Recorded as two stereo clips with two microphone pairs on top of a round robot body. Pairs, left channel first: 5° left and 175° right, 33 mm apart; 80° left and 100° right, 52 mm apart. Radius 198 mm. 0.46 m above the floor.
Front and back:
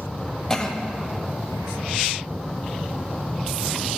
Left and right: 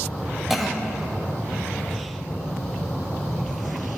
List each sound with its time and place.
0.5 s a cough: 5° left, 1.0 m